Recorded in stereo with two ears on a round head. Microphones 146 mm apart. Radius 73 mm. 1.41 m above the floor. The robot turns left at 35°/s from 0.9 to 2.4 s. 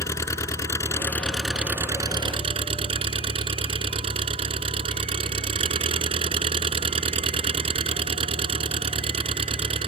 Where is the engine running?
20° left; by 9.9 s 35° right.